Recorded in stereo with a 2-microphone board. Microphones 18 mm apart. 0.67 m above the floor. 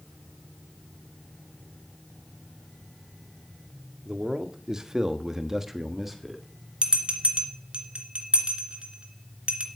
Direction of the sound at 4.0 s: 30° right (ahead or behind).